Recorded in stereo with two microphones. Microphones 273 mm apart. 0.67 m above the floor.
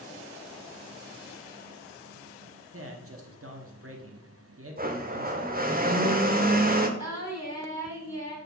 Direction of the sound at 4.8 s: 35° right (ahead or behind).